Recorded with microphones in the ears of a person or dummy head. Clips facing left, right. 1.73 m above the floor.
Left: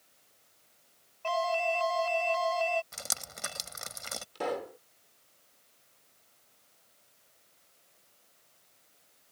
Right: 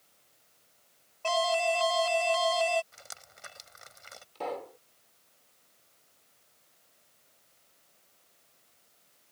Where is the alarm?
50° right (ahead or behind).